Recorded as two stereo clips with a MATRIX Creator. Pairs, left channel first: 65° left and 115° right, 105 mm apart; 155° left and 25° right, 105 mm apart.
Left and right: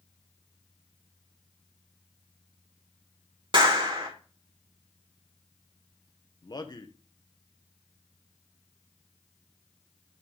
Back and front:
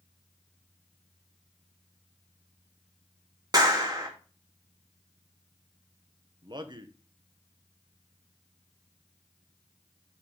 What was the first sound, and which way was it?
A clap, 75° right.